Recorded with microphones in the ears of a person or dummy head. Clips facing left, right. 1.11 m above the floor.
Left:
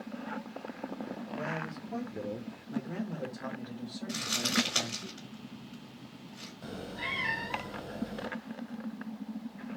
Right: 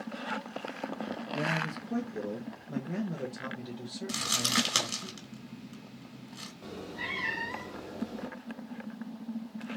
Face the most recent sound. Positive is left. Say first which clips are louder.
# even
turn(degrees=10)  # may be behind; listen again after turning